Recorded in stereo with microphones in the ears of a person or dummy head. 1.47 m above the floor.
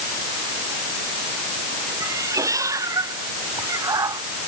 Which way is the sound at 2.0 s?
20° right (ahead or behind).